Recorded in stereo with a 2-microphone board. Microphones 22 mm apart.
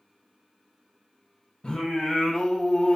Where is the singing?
45° left (ahead or behind), 0.8 m.